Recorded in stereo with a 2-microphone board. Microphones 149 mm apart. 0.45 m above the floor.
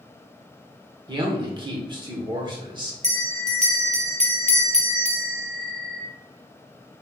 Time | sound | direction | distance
1.1 | a man speaking | 30° right (ahead or behind) | 1.1 m
3.0 | a bell | 45° right (ahead or behind) | 0.9 m